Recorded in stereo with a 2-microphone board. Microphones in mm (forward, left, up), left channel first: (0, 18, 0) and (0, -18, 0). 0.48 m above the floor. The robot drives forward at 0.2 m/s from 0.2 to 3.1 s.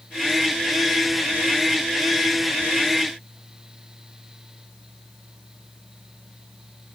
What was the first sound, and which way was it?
Only background noise.